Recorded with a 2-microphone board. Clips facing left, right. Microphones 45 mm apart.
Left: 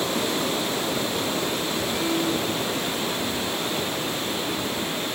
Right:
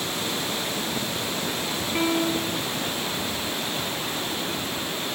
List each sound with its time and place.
1.9 s a piano: 40° right (ahead or behind), 1.7 m